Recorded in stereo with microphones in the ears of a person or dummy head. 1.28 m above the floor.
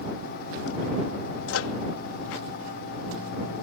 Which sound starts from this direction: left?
A microwave, at 1.5 s.